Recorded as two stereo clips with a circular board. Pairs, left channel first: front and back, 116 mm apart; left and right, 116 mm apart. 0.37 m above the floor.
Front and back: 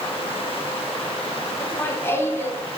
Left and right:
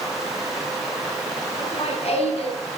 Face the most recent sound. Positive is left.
turn(degrees=65)